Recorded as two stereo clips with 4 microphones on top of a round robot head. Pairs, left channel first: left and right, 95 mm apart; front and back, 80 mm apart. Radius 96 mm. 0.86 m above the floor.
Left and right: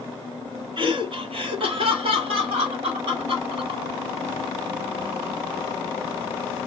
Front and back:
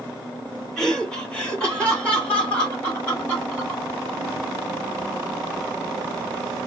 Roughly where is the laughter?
Right.